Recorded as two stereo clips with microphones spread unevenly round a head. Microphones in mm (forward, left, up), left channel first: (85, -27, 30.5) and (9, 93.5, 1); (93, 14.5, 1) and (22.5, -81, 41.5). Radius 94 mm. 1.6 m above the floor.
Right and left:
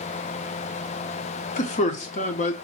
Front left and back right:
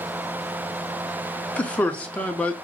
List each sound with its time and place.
1.6 s a man speaking: 30° right, 0.8 m